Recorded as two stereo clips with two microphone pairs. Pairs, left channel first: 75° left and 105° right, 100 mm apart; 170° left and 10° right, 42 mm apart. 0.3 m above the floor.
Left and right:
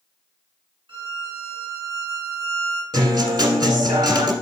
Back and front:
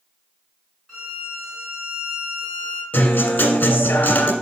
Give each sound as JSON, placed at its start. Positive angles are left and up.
{"t": 0.9, "sound": "a violin", "azimuth_deg": -105, "distance_m": 2.5}
{"t": 2.9, "sound": "a guitar", "azimuth_deg": -150, "distance_m": 1.5}